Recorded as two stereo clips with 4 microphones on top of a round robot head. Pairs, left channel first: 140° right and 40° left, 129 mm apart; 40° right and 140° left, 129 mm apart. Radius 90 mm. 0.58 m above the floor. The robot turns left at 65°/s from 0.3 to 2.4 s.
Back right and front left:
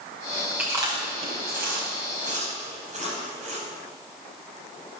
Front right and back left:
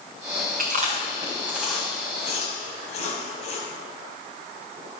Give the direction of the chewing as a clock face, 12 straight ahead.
8 o'clock.